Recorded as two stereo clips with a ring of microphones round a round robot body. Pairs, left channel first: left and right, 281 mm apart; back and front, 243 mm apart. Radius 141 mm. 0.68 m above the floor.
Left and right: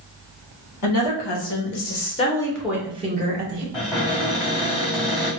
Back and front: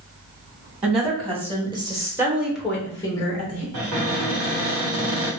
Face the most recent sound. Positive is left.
turn(degrees=15)